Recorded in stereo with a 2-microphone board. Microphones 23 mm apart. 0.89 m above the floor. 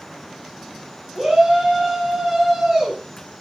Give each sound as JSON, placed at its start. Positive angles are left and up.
{"t": 1.1, "sound": "a shout", "side_deg": -35, "distance_m": 6.5}